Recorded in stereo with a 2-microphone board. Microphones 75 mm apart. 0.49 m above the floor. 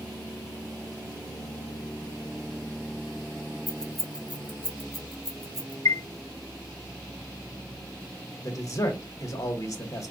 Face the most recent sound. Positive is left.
turn(degrees=45)  # may be behind; listen again after turning